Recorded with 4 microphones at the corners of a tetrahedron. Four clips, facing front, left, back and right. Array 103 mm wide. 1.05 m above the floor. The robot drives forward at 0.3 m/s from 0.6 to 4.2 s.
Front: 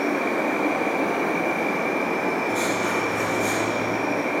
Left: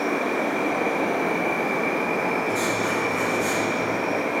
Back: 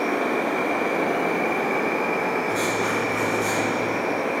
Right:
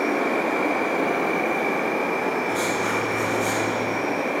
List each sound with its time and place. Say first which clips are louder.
0.0 s an insect: right 1 dB, even; 125° right, 0.9 m; by 4.4 s 155° right, 1.8 m
2.5 s writing: even, even; 155° right, 2.5 m